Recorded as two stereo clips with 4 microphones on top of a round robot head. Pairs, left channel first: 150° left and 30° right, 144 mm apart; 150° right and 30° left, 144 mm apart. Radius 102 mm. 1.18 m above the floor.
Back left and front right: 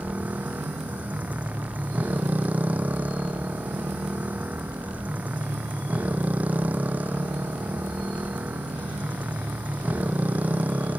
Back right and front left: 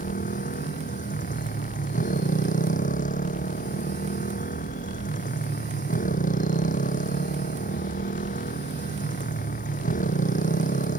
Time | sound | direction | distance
0.0 | a motorcycle | 115° right | ?